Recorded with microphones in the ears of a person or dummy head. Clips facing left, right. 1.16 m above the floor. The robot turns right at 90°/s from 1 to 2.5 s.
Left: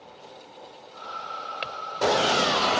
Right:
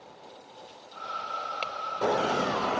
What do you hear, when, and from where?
1.6 s a clink: 15° left (ahead or behind); by 1.8 s centre (ahead or behind)